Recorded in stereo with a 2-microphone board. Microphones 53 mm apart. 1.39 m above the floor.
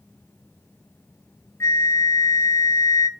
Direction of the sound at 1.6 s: 60° left (ahead or behind).